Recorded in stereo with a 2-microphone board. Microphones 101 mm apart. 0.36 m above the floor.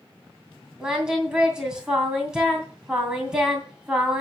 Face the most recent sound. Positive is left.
turn(degrees=-5)  # may be behind; listen again after turning